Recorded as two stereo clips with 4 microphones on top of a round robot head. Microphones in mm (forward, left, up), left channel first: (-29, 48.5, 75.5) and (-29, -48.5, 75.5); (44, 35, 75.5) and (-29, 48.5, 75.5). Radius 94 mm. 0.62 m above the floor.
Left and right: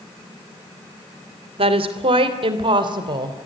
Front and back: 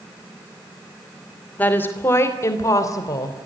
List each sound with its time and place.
1.6 s a woman speaking: 80° right, 3 m; by 3.4 s 45° right, 3.5 m